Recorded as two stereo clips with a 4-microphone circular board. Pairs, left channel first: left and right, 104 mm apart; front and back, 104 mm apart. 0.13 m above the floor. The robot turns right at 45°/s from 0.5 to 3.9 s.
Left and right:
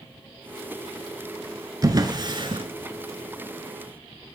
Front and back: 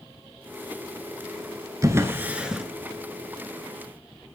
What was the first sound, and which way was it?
A drawer, 130° right.